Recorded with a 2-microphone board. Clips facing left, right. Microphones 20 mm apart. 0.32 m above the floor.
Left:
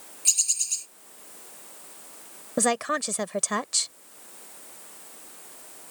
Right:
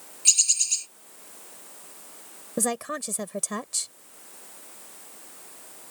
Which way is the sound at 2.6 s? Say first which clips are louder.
Left 4 dB; 30° left (ahead or behind).